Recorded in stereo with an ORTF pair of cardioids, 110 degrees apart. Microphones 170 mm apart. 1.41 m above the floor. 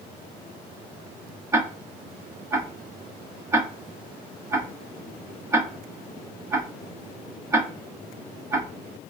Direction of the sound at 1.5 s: 15° right.